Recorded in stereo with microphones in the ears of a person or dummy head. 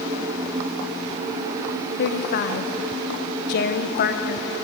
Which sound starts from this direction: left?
A woman speaking, at 2.0 s.